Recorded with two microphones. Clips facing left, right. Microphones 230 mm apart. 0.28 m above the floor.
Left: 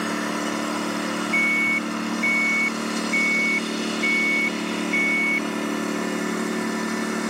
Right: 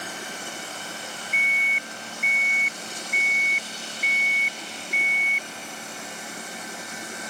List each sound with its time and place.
0.0 s a lawn mower: 90° left
1.3 s an alarm: 60° right (ahead or behind)